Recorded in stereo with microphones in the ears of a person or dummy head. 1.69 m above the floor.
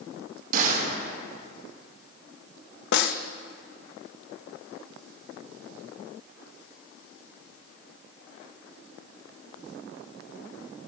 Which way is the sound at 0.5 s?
50° right (ahead or behind).